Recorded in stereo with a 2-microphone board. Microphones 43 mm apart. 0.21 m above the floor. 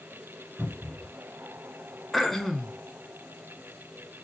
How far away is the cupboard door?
About 2 m.